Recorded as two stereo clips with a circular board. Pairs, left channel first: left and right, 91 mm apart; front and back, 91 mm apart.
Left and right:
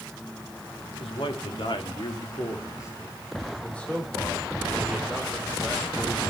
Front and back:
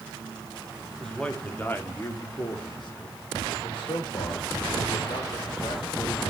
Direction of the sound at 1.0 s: 85° left.